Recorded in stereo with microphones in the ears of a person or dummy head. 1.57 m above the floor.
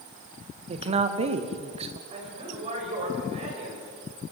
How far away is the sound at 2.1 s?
About 8 m.